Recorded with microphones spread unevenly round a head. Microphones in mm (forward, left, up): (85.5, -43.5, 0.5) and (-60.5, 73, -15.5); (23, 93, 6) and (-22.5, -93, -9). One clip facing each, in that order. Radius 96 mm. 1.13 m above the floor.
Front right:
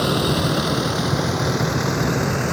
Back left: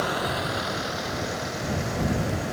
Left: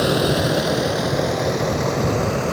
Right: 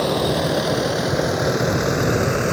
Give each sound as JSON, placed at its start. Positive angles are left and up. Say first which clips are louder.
{"t": 0.0, "sound": "a vehicle", "louder": "front right 8 dB, left 1 dB", "azimuth_deg": 0}